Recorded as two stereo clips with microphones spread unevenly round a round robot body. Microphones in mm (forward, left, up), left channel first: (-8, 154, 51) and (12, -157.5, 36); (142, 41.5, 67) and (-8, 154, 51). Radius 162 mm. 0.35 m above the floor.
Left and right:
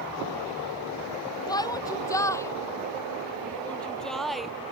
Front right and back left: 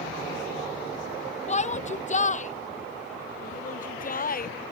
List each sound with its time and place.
1.5 s a shout: 15° left; by 4.5 s 5° left